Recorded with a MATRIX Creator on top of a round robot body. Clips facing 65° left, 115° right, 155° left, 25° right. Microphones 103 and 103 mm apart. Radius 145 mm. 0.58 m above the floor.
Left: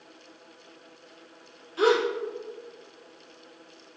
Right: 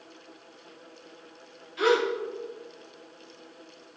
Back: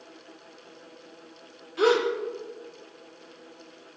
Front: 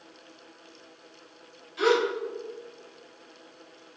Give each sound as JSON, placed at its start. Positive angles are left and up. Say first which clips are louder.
{"t": 1.8, "sound": "a gasp", "louder": "left 1 dB, back 1 dB", "azimuth_deg": 115, "distance_m": 1.7}